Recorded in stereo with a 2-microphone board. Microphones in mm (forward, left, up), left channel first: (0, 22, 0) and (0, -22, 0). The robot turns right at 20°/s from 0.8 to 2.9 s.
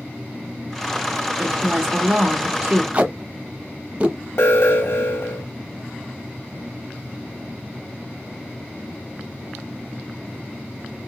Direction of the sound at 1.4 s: 25° right (ahead or behind).